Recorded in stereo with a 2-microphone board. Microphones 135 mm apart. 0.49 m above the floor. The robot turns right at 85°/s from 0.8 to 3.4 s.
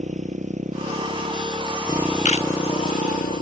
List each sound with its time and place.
0.0 s a motorcycle: 120° right; by 3.4 s 100° left
2.2 s a camera shutter: 60° left (ahead or behind); by 2.5 s 45° left (ahead or behind)